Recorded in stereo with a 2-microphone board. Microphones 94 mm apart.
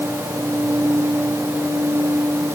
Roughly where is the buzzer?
I don't hear a buzzer.